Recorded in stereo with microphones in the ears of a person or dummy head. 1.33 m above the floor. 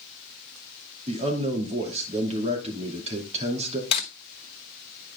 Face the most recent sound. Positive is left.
turn(degrees=40)  # may be behind; listen again after turning